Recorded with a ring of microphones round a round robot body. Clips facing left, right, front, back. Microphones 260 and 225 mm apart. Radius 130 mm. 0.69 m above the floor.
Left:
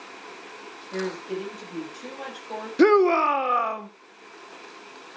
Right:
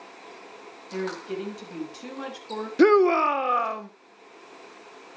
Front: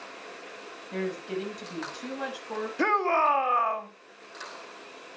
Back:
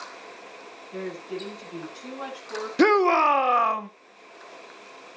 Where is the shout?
Straight behind, 1.0 m.